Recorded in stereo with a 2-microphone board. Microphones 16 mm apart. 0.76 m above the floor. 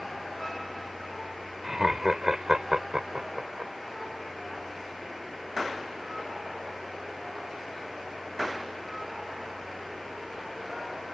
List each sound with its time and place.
1.6 s laughter: 25° right (ahead or behind); by 3.7 s 60° right (ahead or behind)